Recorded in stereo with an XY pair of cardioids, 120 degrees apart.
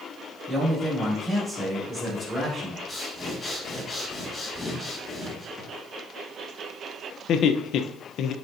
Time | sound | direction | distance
0.5 | a man speaking | 10° right | 4.5 m
2.9 | breathing | 20° left | 3 m
5.6 | a drawer | 15° right | 4 m
7.3 | laughter | 60° left | 0.8 m